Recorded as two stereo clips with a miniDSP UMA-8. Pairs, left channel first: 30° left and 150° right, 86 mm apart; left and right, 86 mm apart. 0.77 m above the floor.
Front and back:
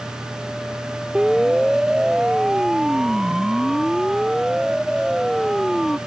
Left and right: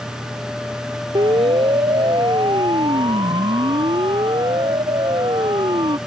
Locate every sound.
1.1 s a siren: 65° right; by 6.0 s 60° right